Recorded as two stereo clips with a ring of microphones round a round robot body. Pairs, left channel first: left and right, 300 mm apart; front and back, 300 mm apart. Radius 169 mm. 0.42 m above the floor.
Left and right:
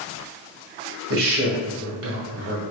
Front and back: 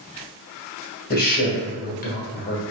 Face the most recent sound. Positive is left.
turn(degrees=-55)